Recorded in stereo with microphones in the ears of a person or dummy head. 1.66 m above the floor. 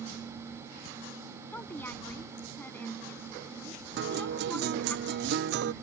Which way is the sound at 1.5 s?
20° left (ahead or behind).